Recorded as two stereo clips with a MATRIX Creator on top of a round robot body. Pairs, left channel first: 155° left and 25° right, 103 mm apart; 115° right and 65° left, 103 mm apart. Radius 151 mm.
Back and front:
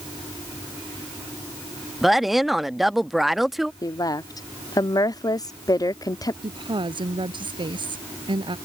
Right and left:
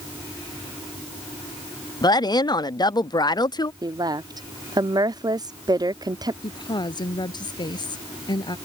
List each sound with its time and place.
2.0 s a woman speaking: 110° right
3.8 s a woman speaking: 110° left
6.4 s a woman speaking: 65° right